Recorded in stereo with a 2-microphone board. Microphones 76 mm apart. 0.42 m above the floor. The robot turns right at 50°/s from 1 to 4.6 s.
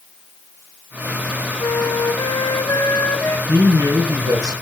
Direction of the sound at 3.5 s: 125° right.